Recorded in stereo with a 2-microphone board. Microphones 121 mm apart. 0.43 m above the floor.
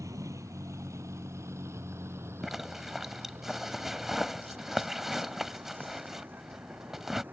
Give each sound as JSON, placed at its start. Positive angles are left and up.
{"t": 0.0, "sound": "a vehicle", "side_deg": -25}
{"t": 2.4, "sound": "a zipper", "side_deg": -5}